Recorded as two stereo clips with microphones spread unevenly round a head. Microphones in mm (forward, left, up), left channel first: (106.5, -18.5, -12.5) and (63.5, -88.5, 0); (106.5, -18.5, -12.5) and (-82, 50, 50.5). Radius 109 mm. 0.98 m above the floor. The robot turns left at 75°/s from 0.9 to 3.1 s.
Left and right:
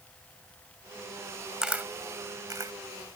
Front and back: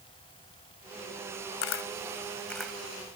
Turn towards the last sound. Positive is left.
turn(degrees=-165)